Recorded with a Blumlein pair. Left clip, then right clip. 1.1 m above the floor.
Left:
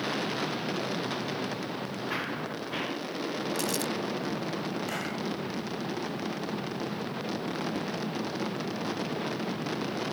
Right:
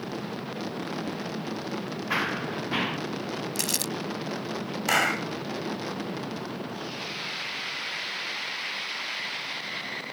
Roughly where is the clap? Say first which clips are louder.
Right 10 dB; ahead right.